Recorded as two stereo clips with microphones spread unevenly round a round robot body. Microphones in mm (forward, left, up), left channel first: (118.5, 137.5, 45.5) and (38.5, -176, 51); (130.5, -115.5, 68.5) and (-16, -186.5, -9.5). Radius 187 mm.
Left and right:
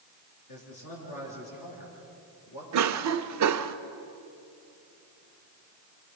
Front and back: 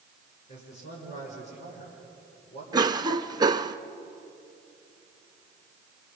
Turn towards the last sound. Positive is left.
turn(degrees=-120)